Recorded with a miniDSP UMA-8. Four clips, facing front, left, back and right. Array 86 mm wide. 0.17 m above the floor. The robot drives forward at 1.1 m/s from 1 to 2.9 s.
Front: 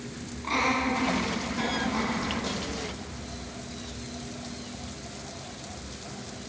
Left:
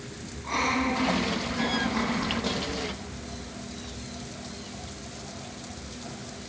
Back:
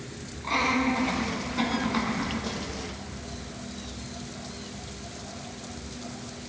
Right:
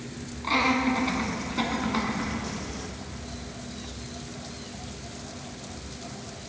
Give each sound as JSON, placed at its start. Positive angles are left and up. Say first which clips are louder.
{"t": 0.4, "sound": "laughter", "louder": "right 3 dB, back 1 dB", "azimuth_deg": -85, "distance_m": 1.8}